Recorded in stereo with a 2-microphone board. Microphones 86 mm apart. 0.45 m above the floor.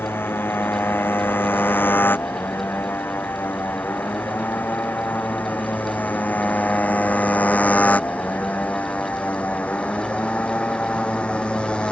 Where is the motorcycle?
25° left (ahead or behind); by 11.9 s 15° left (ahead or behind).